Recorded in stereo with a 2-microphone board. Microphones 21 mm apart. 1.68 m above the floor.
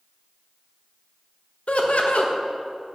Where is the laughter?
85° left, 1.0 m.